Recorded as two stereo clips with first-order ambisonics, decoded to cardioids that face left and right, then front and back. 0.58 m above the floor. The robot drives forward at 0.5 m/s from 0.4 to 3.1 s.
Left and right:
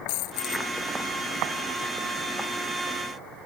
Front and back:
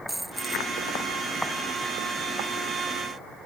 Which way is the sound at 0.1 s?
95° left.